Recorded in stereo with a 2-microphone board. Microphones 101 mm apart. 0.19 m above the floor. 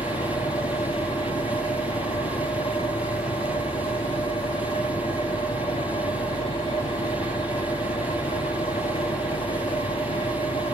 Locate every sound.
0.0 s an engine running: 65° left (ahead or behind), 1.7 m